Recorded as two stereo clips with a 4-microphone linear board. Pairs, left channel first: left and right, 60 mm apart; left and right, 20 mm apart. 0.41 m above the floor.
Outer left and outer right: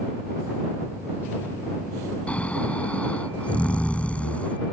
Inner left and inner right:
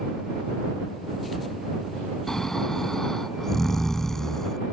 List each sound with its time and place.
2.3 s snoring: 20° left (ahead or behind)